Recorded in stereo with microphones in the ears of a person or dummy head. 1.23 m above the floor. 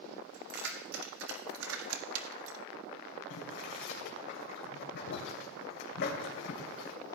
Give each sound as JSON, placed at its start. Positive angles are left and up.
{"t": 0.3, "sound": "keys jangling", "side_deg": -55, "distance_m": 2.5}
{"t": 3.3, "sound": "boiling", "side_deg": 60, "distance_m": 2.5}